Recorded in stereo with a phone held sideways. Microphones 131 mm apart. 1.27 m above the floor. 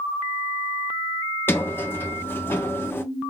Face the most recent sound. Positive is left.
turn(degrees=15)  # may be behind; listen again after turning